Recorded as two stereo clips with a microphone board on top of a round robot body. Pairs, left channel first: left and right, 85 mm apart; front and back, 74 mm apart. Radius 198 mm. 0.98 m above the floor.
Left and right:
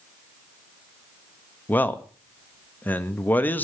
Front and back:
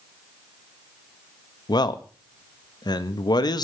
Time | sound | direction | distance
1.7 | a man speaking | 20° left | 1.6 m